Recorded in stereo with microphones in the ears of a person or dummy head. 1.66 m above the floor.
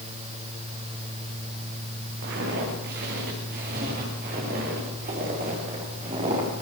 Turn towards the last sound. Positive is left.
turn(degrees=-30)  # may be behind; listen again after turning